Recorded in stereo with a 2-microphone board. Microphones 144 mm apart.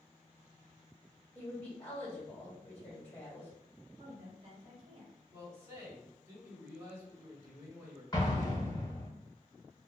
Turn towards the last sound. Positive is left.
turn(degrees=30)  # may be behind; listen again after turning